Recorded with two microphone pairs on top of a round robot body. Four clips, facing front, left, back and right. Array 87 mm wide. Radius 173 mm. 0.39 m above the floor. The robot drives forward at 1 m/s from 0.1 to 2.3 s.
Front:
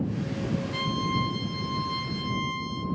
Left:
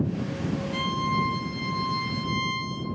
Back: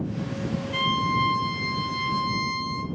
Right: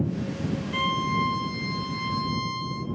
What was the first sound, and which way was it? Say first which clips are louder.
A violin: right 2 dB, back 8 dB; 120° right.